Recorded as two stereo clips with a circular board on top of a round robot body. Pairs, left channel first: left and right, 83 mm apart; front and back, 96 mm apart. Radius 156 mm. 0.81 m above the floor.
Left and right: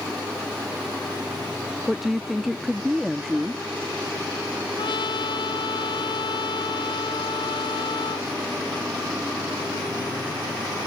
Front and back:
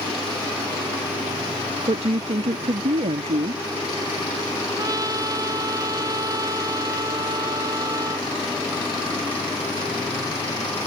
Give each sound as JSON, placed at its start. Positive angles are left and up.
{"t": 1.9, "sound": "a woman speaking", "azimuth_deg": 180}
{"t": 4.8, "sound": "a trumpet", "azimuth_deg": 125}